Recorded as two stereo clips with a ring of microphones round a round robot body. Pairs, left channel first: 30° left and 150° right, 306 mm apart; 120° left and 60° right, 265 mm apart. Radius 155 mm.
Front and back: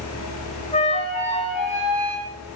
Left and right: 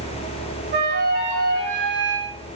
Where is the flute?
30° right, 0.7 m.